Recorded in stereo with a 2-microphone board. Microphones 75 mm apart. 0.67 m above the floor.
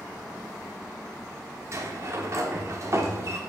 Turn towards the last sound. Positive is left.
turn(degrees=-40)  # may be behind; listen again after turning